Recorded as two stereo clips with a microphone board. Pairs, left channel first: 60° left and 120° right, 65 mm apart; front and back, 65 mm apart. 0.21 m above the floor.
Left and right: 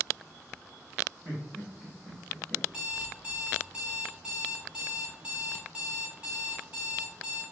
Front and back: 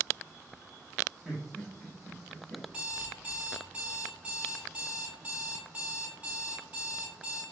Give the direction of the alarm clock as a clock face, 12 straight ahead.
5 o'clock.